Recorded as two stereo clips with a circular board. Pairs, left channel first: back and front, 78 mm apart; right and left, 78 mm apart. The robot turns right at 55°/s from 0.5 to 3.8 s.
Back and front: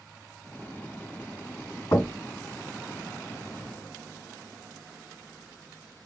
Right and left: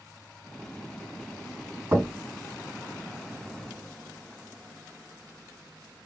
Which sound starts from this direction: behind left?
Knocking, at 1.9 s.